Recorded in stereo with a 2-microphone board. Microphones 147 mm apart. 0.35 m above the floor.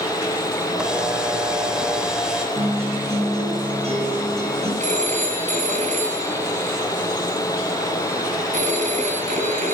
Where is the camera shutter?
5° right (ahead or behind), 1.3 m.